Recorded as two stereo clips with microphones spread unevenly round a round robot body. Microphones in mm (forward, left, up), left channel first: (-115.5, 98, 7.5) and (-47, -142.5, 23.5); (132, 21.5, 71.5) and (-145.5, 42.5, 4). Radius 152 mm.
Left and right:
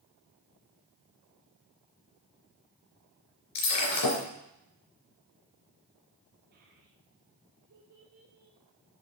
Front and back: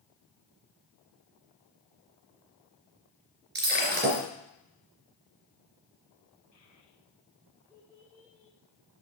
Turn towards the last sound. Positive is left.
turn(degrees=-95)